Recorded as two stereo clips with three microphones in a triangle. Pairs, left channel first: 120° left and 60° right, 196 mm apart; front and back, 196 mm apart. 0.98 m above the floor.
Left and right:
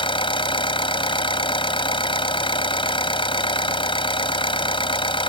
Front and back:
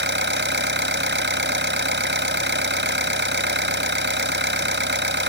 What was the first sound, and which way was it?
An engine running, straight behind.